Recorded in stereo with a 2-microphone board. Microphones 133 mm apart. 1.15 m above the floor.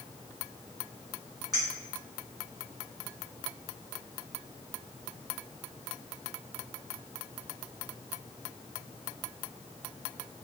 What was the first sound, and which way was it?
A clink, 30° right (ahead or behind).